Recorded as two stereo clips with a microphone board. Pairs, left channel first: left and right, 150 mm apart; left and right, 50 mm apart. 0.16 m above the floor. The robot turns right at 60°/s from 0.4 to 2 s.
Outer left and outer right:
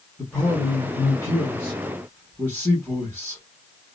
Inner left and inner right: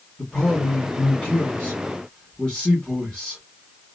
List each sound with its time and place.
0.2 s a man speaking: 10° left (ahead or behind), 1.6 m; by 3.4 s 15° left (ahead or behind), 1.6 m